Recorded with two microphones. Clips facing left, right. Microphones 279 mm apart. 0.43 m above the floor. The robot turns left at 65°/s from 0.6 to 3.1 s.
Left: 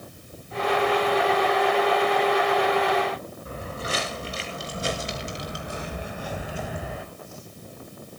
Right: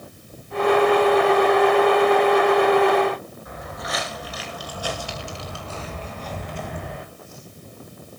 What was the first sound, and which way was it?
Footsteps, 35° left (ahead or behind).